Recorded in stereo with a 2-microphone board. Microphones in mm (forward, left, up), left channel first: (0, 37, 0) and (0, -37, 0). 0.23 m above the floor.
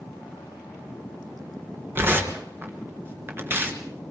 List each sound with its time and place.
1.9 s tearing paper: 30° right (ahead or behind), 3 m